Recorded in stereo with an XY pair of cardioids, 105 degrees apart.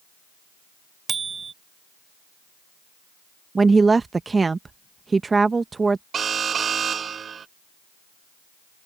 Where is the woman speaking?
30° right.